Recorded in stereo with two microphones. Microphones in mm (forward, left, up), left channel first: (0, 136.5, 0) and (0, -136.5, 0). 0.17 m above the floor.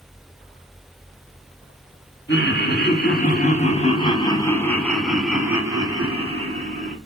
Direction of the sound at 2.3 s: 45° left (ahead or behind).